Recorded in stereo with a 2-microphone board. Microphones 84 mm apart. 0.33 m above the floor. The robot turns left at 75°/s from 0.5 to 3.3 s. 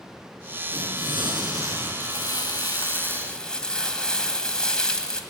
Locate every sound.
0.7 s tearing paper: 65° right, 5 m; by 1.9 s 155° right, 5 m
2.0 s crumpling: 110° left, 1.8 m; by 5.2 s 10° left, 1.8 m